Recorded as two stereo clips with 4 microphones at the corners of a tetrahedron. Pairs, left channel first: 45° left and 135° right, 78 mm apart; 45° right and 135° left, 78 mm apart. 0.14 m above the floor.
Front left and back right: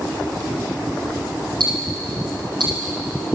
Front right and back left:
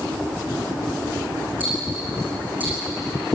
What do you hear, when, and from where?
1.6 s ticking: 155° right, 8 m